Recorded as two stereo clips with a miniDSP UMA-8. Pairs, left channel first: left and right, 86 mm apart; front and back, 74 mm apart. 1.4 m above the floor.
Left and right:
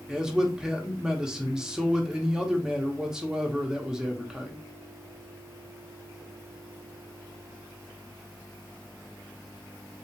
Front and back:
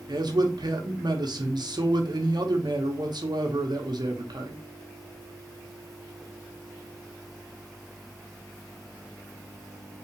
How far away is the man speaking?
About 1.1 m.